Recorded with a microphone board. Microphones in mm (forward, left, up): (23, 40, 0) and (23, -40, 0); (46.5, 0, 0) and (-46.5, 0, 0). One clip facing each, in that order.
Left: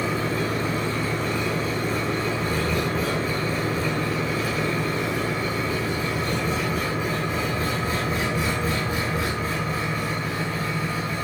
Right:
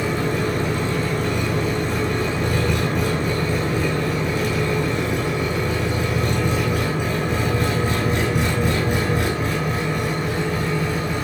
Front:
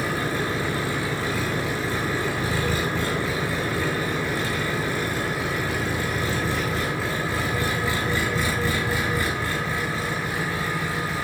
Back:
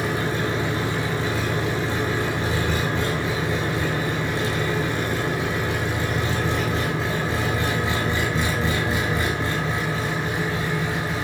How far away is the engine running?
About 6 m.